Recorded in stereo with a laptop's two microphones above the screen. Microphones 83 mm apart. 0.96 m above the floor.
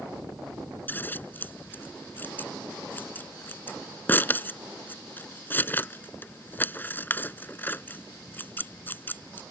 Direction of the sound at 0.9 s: 25° left (ahead or behind).